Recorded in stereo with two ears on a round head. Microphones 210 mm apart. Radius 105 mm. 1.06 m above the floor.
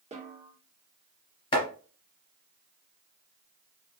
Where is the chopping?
25° left (ahead or behind), 2 m.